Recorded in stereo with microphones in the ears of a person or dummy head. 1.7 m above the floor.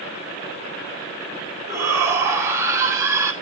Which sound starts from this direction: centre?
A shout, at 1.7 s.